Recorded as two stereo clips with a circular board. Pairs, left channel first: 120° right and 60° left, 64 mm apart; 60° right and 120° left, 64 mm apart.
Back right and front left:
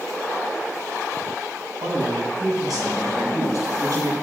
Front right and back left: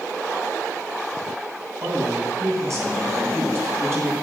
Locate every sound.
1.8 s a man speaking: 80° left, 6.5 m; by 4.1 s 65° left, 6.5 m